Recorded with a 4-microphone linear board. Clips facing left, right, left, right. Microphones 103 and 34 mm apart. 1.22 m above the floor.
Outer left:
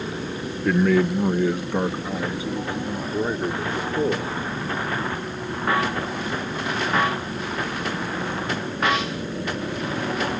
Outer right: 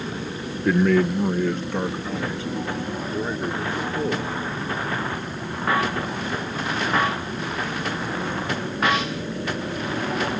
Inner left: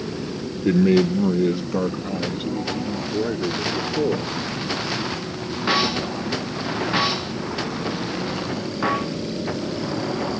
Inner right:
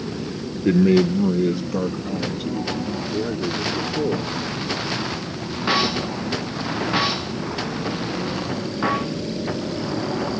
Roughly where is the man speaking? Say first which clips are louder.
Even, inner right 1 dB; centre.